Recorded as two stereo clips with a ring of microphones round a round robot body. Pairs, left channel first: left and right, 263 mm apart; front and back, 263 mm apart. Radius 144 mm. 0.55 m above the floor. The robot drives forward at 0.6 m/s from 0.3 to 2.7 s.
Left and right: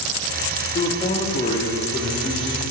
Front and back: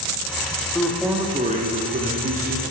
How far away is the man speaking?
About 0.8 m.